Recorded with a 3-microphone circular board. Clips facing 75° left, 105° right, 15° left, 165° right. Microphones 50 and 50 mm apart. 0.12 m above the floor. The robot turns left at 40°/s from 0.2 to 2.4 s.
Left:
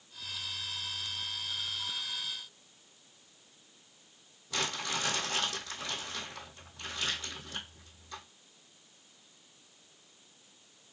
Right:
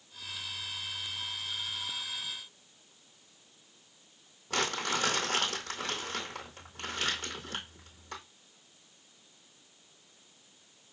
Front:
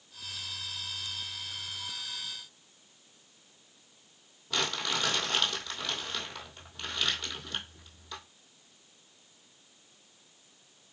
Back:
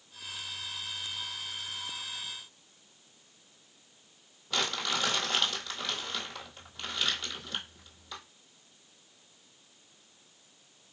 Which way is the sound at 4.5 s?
75° right.